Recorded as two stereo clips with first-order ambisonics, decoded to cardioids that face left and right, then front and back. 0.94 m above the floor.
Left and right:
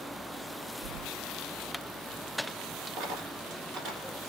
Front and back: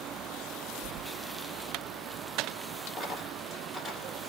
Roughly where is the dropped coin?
Right.